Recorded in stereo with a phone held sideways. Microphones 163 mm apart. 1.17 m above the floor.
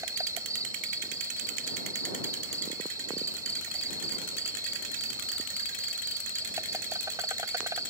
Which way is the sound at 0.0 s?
20° right (ahead or behind).